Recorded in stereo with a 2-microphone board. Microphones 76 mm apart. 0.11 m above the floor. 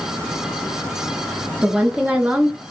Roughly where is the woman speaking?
Centre.